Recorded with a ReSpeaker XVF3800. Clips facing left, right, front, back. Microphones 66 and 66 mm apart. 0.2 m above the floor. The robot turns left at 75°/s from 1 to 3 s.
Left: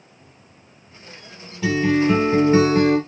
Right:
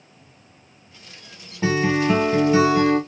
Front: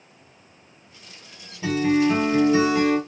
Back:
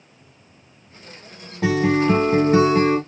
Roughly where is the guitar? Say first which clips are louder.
Left 2 dB, back 2 dB; behind right.